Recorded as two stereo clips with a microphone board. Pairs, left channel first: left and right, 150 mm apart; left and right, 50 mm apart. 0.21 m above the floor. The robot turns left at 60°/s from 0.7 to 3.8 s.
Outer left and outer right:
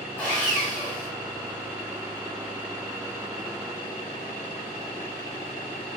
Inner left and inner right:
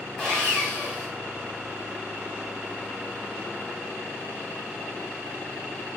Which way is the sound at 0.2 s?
10° left (ahead or behind).